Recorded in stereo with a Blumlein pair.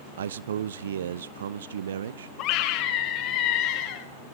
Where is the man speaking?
60° right, 0.8 m.